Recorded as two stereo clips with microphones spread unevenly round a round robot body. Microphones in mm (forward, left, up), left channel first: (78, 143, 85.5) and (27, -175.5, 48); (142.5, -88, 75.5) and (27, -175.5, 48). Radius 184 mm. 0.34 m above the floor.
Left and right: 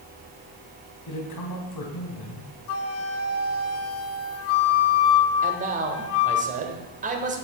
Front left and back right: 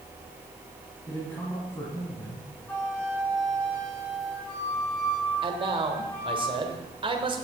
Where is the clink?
No clink in this recording.